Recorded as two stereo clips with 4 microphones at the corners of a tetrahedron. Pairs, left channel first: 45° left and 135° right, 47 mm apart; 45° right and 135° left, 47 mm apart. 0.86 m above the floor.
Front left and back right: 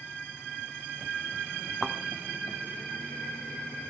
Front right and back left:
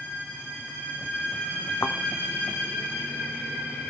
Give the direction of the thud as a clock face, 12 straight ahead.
2 o'clock.